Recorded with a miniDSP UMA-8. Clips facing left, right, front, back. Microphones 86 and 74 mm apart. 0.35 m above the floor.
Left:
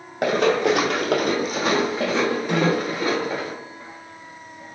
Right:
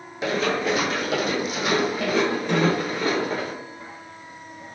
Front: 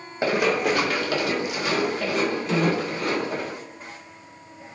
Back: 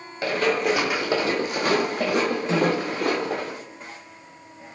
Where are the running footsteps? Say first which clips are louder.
Left 5 dB, front 1 dB; 65° left, 1.0 m; by 3.5 s 170° left, 2.5 m.